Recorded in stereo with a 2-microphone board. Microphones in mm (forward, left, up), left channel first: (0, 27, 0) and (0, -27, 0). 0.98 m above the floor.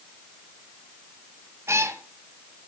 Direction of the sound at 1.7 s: 60° right (ahead or behind).